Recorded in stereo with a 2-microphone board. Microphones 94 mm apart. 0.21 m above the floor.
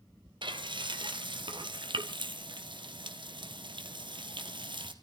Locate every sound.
0.4 s frying: 60° right (ahead or behind), 2.5 m